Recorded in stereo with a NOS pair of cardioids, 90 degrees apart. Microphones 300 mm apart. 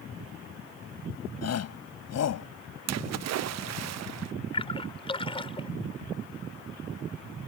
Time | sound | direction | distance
1.4 | a shout | 55° left | ?
2.9 | a splash | 60° right | ?
4.5 | a splash | 20° left | ?